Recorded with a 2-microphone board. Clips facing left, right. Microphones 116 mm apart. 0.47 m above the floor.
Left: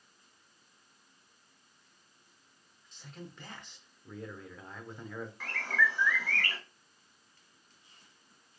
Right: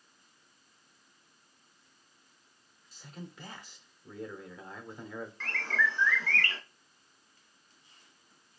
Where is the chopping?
No chopping in this recording.